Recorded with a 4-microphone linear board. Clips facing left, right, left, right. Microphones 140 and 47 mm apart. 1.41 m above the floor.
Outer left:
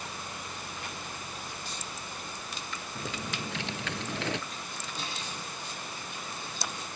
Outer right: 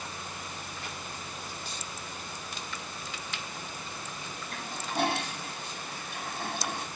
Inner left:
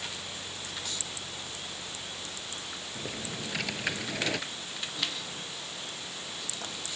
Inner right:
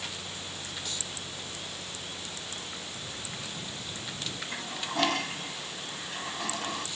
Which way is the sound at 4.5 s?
65° right (ahead or behind).